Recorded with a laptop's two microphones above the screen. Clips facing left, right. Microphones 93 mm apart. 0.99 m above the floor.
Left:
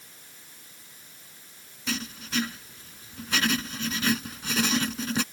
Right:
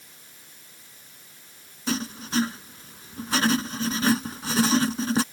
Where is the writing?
35° right (ahead or behind).